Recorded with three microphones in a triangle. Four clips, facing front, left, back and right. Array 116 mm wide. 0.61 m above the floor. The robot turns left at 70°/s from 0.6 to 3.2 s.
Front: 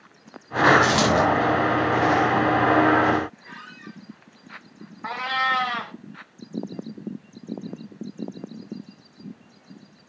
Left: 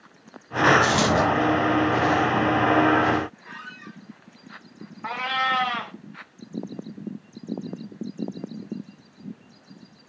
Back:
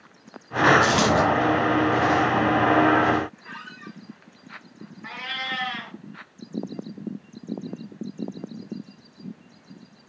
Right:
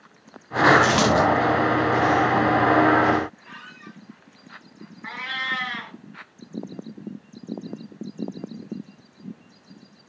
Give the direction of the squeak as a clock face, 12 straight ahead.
7 o'clock.